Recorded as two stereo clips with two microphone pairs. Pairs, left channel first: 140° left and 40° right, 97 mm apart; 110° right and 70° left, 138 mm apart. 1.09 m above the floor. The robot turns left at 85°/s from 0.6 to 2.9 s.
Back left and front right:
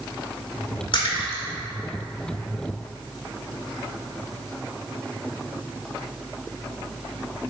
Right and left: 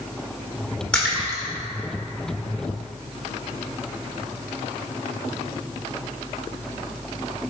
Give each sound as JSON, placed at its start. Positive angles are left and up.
{"t": 0.9, "sound": "a splash", "azimuth_deg": 170, "distance_m": 2.0}